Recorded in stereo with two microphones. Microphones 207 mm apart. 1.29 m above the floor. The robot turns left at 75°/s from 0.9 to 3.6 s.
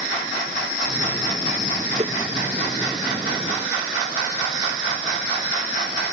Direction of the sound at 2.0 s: 35° right (ahead or behind).